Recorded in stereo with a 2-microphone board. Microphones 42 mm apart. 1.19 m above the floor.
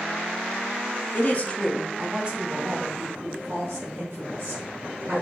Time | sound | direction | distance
1.1 | a woman speaking | 45° left (ahead or behind) | 0.7 m